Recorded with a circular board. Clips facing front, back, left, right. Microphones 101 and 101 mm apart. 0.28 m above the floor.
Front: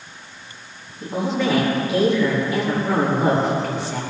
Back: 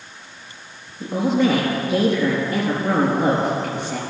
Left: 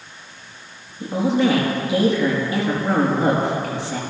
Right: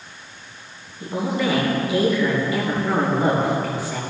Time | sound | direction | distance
1.0 | a woman speaking | 155° left | 4 m